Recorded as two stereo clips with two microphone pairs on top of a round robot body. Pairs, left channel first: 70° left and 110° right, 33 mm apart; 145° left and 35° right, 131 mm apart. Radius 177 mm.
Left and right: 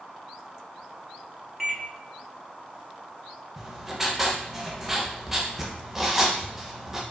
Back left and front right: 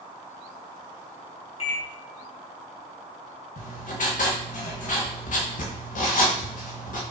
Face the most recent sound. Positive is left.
turn(degrees=165)